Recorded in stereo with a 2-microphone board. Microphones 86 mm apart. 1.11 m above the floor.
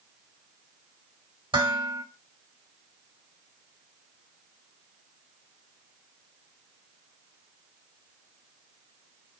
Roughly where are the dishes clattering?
Right.